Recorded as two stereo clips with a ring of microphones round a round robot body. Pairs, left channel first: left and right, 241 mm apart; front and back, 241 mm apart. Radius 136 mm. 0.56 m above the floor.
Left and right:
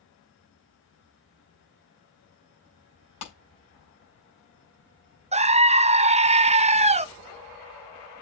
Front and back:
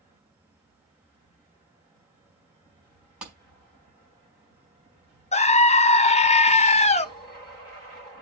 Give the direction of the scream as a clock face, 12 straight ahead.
1 o'clock.